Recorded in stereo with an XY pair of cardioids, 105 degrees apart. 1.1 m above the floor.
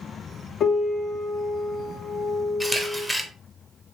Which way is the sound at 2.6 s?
15° left.